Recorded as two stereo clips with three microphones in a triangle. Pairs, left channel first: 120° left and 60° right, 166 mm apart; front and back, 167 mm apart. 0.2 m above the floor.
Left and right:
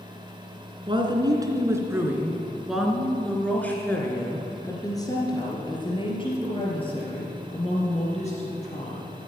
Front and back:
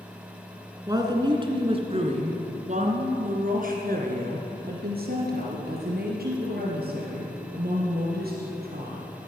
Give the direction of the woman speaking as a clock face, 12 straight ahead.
4 o'clock.